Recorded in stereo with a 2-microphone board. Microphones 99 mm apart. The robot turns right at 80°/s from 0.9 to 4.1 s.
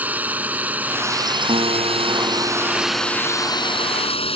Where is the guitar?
100° right; by 3.9 s 95° left.